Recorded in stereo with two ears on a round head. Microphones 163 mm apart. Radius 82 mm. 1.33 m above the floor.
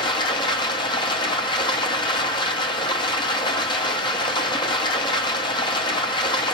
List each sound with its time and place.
0.0 s running water: 25° left (ahead or behind), 0.7 m